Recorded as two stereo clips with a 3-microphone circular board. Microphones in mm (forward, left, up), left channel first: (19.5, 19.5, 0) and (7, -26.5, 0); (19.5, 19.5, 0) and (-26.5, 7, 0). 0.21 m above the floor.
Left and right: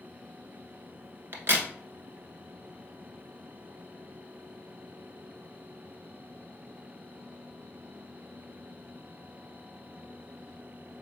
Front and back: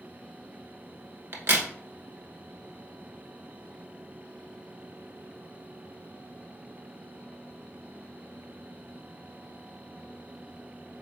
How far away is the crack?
About 0.9 m.